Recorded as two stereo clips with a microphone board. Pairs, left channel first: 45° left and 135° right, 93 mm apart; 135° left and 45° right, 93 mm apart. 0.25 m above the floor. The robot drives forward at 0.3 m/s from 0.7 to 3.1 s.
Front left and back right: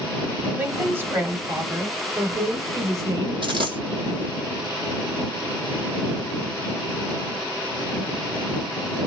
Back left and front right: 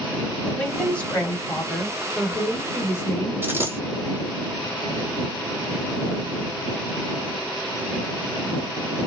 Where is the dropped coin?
110° right, 1.2 m.